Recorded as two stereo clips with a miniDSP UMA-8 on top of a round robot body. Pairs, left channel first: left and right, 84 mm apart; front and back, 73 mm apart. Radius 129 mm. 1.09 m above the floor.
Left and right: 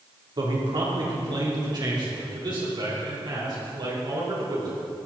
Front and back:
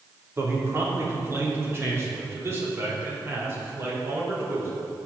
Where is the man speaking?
125° right, 3.5 m.